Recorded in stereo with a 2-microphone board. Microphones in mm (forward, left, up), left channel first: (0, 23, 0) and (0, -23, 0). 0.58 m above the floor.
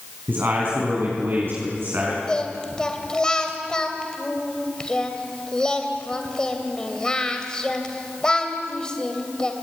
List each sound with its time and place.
0.3 s a man speaking: 55° right (ahead or behind), 4.5 m
2.3 s singing: 20° left (ahead or behind), 2.5 m